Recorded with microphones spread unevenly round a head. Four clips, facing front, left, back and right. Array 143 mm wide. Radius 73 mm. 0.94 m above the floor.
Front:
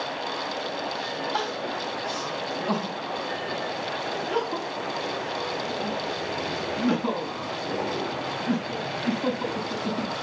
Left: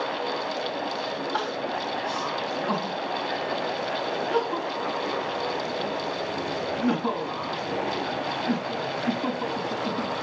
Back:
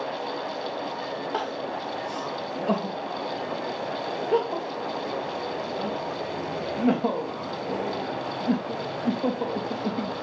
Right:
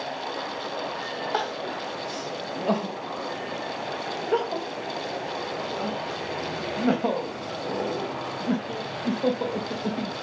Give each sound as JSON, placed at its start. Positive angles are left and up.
{"t": 1.3, "sound": "crying", "azimuth_deg": -120, "distance_m": 3.0}